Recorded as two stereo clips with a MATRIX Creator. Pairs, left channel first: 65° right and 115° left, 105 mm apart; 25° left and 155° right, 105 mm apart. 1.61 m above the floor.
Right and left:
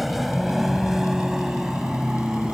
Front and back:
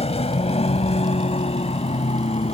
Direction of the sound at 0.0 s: 25° left.